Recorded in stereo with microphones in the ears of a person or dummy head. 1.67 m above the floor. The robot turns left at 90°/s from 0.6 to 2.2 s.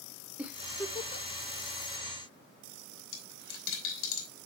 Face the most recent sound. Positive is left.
turn(degrees=75)  # may be behind; listen again after turning